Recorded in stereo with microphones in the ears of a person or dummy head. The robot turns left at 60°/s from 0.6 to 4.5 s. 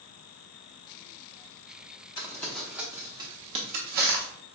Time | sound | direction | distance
2.2 | crumpling | 20° left (ahead or behind) | 0.7 m